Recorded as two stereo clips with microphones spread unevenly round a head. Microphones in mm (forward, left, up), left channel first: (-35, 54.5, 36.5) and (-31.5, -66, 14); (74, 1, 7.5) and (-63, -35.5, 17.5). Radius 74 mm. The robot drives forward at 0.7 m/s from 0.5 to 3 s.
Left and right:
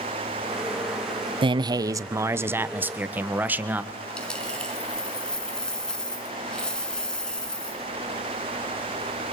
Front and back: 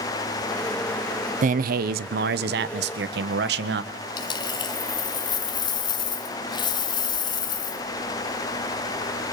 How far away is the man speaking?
About 0.6 m.